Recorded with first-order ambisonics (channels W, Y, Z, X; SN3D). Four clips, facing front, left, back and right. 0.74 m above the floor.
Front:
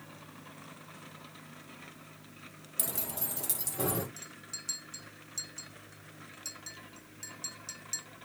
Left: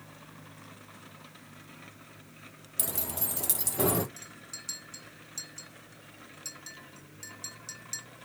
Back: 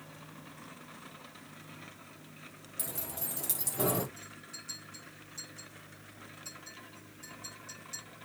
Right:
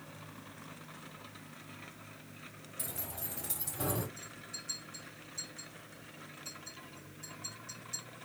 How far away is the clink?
About 1.8 m.